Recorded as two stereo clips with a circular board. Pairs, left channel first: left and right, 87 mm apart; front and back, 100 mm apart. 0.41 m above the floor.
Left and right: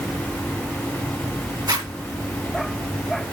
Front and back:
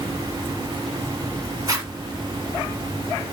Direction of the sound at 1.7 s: 125° right.